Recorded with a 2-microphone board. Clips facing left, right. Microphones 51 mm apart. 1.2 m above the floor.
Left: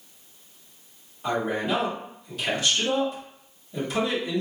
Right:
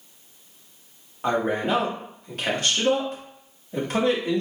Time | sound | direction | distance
1.2 | a man speaking | 50° right (ahead or behind) | 1.1 m